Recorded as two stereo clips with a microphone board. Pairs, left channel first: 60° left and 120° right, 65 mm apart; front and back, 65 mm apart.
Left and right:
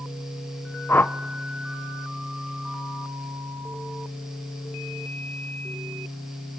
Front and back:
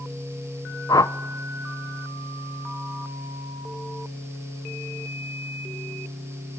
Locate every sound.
0.9 s a whoosh: 5° left, 0.8 m